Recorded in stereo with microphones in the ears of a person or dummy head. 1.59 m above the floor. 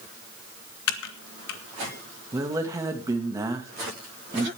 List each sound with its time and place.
0.9 s typing on a keyboard: 75° left (ahead or behind), 1.4 m
2.3 s a woman speaking: 15° right (ahead or behind), 2 m